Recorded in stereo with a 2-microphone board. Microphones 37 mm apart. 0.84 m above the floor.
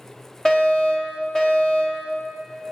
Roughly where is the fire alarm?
Centre.